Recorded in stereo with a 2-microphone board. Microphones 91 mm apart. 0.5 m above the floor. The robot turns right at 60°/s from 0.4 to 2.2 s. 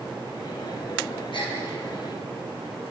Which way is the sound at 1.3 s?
65° left (ahead or behind).